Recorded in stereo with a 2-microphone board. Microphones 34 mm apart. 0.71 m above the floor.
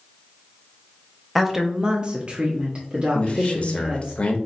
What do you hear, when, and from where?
1.4 s a woman speaking: centre (ahead or behind), 0.6 m; by 4.1 s 35° right (ahead or behind), 1.9 m
3.1 s a man speaking: 35° left (ahead or behind), 0.7 m